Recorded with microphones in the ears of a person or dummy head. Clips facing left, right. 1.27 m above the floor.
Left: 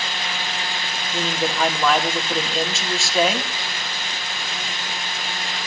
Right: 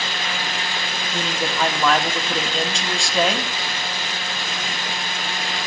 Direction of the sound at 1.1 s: 5° left (ahead or behind).